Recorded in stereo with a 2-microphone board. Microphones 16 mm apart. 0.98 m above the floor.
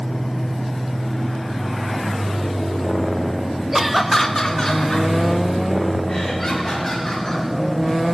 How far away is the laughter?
About 0.6 m.